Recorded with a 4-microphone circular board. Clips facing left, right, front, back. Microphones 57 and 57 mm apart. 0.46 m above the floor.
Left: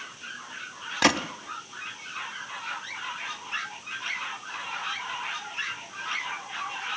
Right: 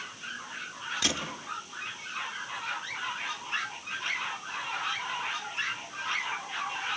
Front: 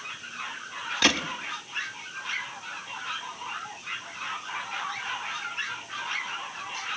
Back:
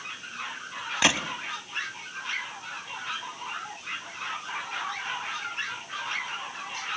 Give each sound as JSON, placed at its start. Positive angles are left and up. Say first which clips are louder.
{"t": 1.0, "sound": "a gunshot", "louder": "left 12 dB, even", "azimuth_deg": 105, "distance_m": 1.0}